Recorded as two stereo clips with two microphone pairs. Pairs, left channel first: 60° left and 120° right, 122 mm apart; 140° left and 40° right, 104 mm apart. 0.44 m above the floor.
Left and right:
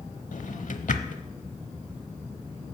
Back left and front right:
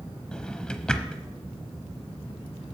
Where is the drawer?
60° left, 0.7 m.